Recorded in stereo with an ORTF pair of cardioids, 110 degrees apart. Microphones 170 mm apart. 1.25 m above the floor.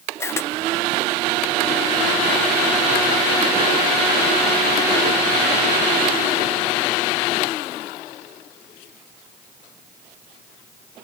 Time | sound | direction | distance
0.2 | a camera shutter | 15° left | 0.6 m